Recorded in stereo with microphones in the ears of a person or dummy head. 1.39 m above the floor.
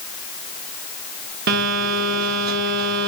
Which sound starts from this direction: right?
A phone buzzing, at 1.5 s.